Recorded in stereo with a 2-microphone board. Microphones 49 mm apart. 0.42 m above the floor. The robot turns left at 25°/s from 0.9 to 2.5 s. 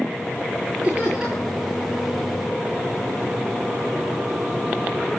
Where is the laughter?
25° right (ahead or behind), 9 m; by 1.6 s 10° right (ahead or behind), 9 m.